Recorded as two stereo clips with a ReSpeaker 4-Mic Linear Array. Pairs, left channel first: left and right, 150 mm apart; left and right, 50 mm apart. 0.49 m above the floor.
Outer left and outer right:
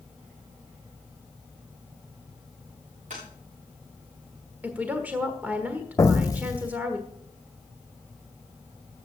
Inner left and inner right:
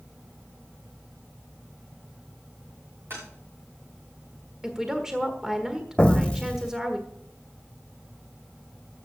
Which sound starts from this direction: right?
Tapping, at 3.1 s.